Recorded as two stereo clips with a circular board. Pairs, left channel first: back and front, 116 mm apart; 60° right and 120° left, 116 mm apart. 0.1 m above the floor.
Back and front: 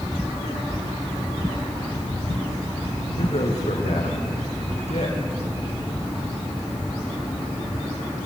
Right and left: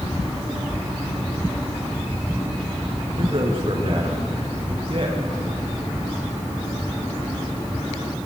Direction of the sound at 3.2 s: 155° left.